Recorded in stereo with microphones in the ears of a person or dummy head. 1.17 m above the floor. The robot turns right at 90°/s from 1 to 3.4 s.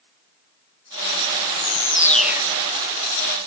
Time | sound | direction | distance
1.4 | a bird | 110° left | 0.8 m